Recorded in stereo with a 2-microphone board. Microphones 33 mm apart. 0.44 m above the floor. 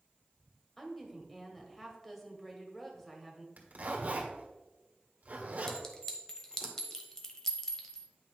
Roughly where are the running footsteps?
I don't hear running footsteps.